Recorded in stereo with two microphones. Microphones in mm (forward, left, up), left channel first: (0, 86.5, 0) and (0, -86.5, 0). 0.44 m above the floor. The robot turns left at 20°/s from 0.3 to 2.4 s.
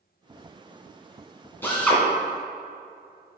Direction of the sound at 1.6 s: 10° left (ahead or behind).